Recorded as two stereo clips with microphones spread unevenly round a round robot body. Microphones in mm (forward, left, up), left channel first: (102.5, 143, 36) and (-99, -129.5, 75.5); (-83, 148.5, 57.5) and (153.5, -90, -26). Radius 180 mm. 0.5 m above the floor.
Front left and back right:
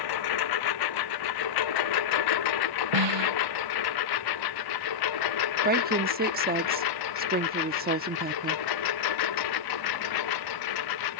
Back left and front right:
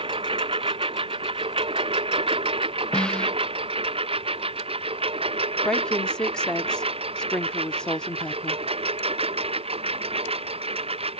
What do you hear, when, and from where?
0.0 s a lawn mower: 30° left
2.9 s a snare drum: 140° right
5.6 s a woman speaking: 100° right